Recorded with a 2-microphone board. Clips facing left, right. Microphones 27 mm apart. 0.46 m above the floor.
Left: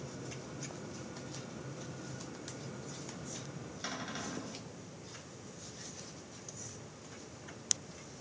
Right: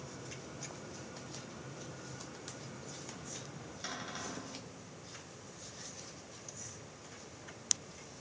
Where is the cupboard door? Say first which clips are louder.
Left 1 dB; 10° left (ahead or behind), 2.5 m.